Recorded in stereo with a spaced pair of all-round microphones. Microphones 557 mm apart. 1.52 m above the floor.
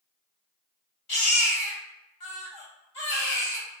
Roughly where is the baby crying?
Left.